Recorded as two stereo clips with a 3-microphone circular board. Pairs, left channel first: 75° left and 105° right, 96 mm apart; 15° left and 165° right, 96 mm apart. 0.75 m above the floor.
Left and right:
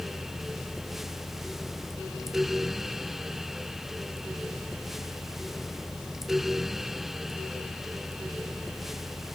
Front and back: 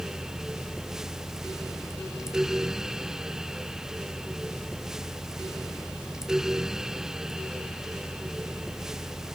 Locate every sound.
Only background noise.